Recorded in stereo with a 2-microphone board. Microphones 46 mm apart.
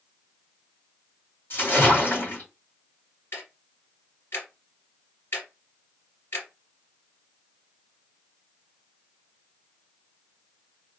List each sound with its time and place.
1.5 s a splash: 50° left (ahead or behind), 2 m
3.3 s ticking: 70° left (ahead or behind), 2 m